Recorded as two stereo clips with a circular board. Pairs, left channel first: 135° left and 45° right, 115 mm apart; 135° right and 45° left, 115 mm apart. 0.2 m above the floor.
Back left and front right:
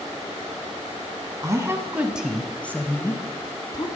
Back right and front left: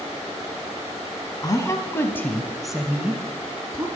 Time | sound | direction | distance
1.4 | a woman speaking | 95° right | 1.3 m